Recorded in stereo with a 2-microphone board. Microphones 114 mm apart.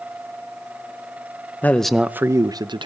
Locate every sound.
1.6 s a man speaking: 15° left (ahead or behind), 0.7 m; by 2.9 s 45° right (ahead or behind), 1.0 m